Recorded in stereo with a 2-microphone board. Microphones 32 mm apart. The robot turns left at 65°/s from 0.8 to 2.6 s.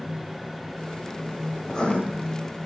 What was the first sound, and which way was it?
Writing, 15° left (ahead or behind).